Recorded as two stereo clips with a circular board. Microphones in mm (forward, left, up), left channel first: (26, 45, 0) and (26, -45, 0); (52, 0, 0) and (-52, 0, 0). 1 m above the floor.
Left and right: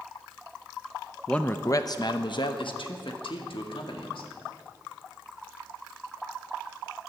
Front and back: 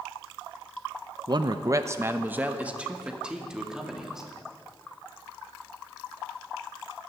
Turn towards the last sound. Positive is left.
turn(degrees=95)